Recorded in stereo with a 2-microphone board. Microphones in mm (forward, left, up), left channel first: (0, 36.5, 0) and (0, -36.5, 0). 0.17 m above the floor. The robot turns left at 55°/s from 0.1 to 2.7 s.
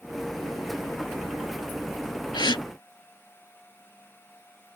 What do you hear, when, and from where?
2.3 s a gasp: 75° left (ahead or behind)